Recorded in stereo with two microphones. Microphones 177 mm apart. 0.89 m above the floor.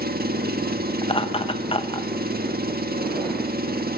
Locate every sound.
0.0 s an engine running: 60° right (ahead or behind), 1.5 m
1.0 s laughter: 30° left (ahead or behind), 0.9 m